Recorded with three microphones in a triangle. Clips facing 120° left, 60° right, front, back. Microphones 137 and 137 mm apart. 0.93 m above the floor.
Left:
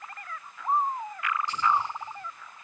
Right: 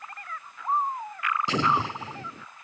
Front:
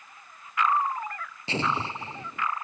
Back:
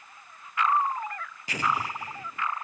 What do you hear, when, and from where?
1.5 s an explosion: 65° right